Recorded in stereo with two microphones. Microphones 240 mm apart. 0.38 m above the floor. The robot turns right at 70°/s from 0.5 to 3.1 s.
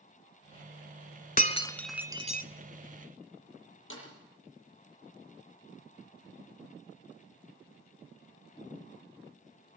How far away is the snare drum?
About 7.5 m.